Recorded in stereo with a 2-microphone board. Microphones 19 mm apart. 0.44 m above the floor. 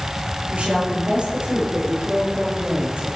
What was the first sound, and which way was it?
A woman speaking, 65° right (ahead or behind).